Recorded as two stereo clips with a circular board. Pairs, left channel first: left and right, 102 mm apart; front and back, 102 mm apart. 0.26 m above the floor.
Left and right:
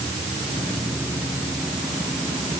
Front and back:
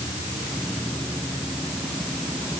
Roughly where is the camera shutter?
I don't hear a camera shutter.